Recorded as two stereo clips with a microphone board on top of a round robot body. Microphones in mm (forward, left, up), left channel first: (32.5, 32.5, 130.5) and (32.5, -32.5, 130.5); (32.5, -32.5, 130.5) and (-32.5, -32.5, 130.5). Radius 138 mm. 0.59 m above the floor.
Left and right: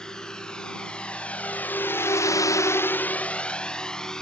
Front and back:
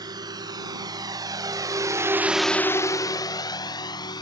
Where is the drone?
170° left; by 4.2 s 10° left.